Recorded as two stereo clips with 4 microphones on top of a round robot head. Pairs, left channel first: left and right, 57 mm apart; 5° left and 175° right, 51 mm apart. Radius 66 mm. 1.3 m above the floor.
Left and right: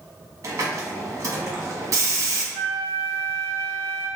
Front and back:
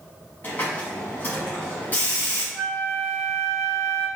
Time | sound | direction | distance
0.4 | a hiss | 60° right | 1.3 m
2.5 | a flute | 95° right | 1.9 m